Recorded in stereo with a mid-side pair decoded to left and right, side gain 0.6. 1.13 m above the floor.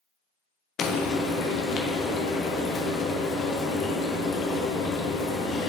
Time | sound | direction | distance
0.8 | frying | 50° left | 0.5 m